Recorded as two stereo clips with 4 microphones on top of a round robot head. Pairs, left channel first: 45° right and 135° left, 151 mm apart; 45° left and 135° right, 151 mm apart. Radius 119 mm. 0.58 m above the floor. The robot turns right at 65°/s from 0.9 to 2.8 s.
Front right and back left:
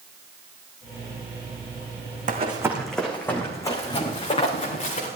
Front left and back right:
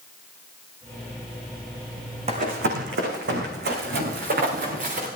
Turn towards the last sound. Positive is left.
turn(degrees=-95)